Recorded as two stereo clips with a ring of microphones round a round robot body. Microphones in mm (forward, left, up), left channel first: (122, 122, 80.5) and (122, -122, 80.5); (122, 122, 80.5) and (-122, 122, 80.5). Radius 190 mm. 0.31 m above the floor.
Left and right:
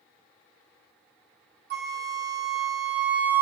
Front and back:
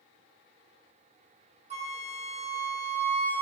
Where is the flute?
125° right, 1.0 m.